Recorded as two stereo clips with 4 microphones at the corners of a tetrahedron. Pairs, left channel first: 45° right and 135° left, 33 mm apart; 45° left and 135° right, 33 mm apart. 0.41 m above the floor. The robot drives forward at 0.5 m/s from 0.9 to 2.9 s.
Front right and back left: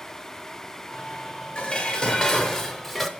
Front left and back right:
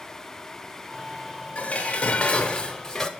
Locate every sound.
1.6 s dishes clattering: 10° left, 1.0 m; by 3.1 s 40° left, 0.6 m